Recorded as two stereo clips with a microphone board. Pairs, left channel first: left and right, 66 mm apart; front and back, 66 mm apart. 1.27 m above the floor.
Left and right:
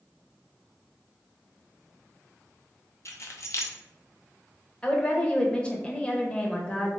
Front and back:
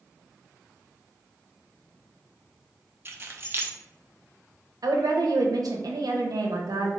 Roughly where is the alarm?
I don't hear an alarm.